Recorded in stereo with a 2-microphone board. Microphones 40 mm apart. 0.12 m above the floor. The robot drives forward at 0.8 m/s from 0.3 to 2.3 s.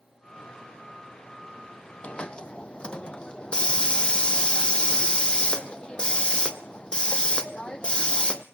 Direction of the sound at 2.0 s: 30° left (ahead or behind).